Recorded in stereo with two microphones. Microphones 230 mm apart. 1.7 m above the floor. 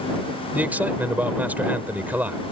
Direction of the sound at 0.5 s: 5° right (ahead or behind).